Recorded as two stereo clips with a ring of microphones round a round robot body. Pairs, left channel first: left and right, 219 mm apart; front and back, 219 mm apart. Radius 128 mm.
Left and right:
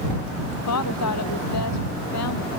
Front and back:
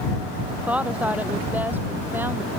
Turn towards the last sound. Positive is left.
turn(degrees=100)